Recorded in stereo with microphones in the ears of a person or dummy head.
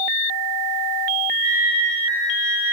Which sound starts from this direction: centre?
A flute, at 1.4 s.